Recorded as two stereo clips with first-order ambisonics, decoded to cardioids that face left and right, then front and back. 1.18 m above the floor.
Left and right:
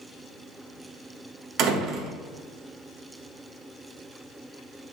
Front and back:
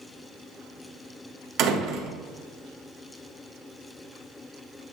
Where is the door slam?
135° right, 1.1 m.